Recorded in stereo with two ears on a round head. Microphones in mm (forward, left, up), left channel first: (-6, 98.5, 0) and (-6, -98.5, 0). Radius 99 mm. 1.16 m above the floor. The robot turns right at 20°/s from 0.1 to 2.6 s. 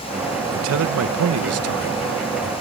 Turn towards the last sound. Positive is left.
turn(degrees=-70)